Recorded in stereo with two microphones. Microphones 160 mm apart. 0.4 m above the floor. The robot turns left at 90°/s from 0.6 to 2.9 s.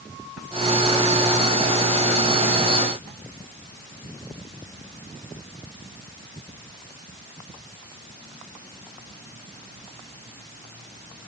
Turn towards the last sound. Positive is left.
No sound to turn to.